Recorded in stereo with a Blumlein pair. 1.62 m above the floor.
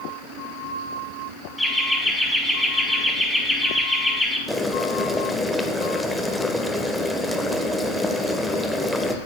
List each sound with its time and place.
1.6 s laughter: straight ahead, 2.5 m
4.5 s boiling: 5° left, 1.1 m